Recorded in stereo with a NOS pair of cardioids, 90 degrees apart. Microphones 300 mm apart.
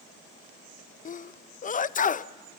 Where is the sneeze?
25° left, 0.5 m.